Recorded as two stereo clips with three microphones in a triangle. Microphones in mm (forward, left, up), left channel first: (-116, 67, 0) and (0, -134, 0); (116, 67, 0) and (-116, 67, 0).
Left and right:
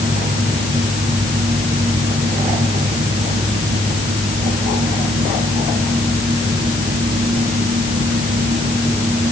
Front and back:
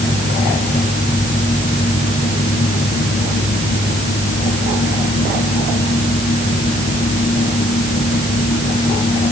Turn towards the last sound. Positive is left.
No sound to turn to.